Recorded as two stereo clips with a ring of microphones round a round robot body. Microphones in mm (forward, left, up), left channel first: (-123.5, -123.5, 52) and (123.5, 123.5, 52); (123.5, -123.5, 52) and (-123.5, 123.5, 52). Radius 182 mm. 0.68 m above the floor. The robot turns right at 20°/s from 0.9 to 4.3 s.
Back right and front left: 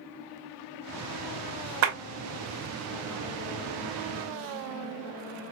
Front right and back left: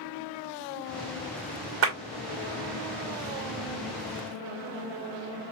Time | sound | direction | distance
1.8 | a clap | 85° left | 1.6 m